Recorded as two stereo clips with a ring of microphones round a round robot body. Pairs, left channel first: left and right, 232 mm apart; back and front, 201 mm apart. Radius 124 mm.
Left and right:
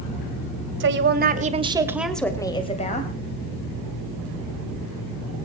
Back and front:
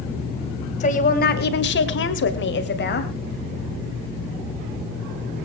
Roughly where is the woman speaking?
Behind right.